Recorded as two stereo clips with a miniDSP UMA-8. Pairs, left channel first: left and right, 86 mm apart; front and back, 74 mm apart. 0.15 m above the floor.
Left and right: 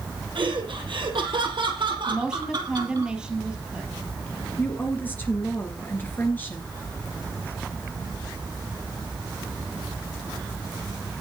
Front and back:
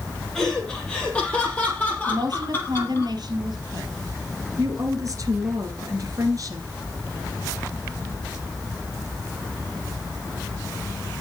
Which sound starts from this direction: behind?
A woman speaking, at 2.1 s.